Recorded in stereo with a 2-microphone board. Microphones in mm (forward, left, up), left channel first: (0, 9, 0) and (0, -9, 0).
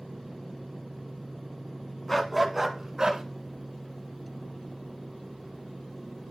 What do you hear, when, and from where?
2.1 s a dog barking: 10° left (ahead or behind), 1.1 m; by 3.2 s 40° right (ahead or behind), 1.4 m